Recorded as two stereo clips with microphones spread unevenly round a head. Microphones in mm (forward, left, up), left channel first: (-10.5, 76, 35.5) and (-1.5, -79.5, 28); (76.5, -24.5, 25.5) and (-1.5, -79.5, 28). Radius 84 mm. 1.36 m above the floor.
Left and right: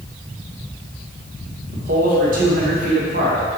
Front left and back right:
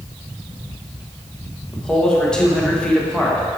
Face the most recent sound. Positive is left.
turn(degrees=-45)